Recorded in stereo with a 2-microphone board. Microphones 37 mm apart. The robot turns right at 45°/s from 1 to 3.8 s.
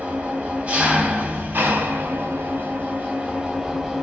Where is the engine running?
135° right, 1.1 m; by 4.0 s 5° right, 1.1 m.